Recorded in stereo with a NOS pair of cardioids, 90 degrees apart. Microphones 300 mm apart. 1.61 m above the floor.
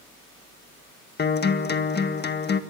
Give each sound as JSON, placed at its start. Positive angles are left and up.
{"t": 1.2, "sound": "a guitar", "azimuth_deg": 35, "distance_m": 1.7}